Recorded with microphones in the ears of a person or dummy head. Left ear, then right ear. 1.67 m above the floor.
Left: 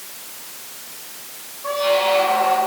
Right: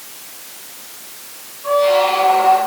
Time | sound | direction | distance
1.6 | a squeak | 15° left (ahead or behind) | 2 m